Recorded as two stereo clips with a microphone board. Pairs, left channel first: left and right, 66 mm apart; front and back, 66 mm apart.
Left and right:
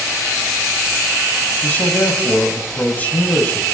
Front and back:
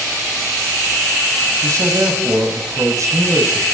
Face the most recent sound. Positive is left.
turn(degrees=155)